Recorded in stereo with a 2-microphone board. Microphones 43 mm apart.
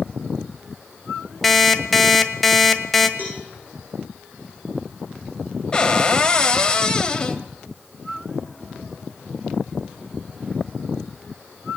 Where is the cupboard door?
25° left (ahead or behind), 1.9 m.